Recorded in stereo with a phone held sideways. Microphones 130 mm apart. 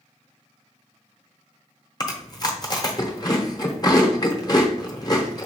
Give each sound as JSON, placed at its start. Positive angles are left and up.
{"t": 2.0, "sound": "chewing", "side_deg": 30, "distance_m": 0.8}